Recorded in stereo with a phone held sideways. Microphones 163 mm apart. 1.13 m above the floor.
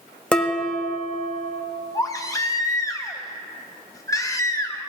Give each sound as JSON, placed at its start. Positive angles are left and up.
{"t": 0.3, "sound": "dishes clattering", "side_deg": 5, "distance_m": 1.0}
{"t": 1.9, "sound": "a baby crying", "side_deg": 20, "distance_m": 0.9}